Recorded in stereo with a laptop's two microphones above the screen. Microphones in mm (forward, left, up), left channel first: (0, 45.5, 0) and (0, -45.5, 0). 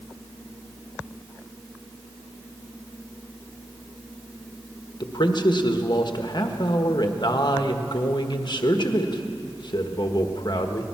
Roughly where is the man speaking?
Left.